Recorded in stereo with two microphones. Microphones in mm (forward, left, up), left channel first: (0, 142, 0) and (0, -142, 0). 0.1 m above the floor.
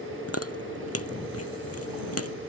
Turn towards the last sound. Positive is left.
turn(degrees=55)  # may be behind; listen again after turning